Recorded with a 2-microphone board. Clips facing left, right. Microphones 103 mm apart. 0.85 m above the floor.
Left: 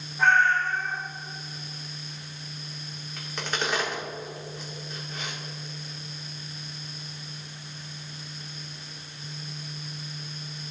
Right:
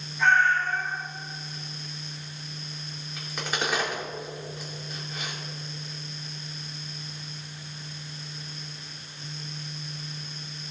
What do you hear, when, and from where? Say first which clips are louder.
0.2 s a cat meowing: left 1 dB; 45° left (ahead or behind), 3.5 m
3.2 s a crack: even; 5° right (ahead or behind), 2.5 m